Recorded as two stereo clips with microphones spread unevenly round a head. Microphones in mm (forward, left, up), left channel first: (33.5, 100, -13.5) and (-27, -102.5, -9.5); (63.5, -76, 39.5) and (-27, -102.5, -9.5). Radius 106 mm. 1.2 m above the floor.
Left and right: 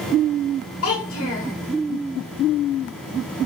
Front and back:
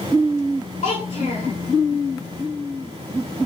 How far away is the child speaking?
About 3 m.